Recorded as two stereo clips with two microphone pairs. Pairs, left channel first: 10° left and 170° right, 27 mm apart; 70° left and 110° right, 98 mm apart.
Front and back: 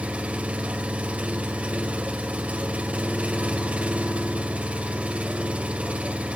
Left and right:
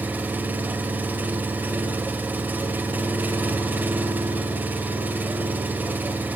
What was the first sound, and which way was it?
An engine running, straight behind.